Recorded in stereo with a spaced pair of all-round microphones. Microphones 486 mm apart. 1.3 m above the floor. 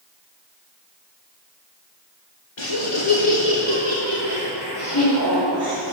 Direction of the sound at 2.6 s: 65° left (ahead or behind).